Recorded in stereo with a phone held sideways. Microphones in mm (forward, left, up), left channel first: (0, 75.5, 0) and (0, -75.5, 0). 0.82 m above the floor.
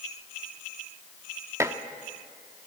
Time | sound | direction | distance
1.6 | dishes clattering | 20° right (ahead or behind) | 1.1 m